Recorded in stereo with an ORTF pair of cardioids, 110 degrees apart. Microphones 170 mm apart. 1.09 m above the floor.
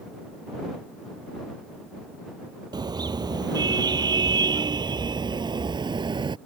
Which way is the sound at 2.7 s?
25° right.